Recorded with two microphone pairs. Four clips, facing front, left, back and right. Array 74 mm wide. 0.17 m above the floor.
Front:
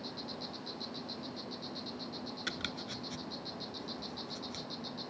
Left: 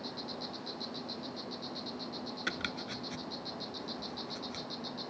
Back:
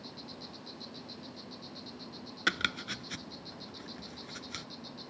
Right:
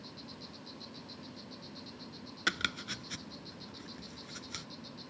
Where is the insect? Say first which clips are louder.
Left 8 dB, front 4 dB; 70° left.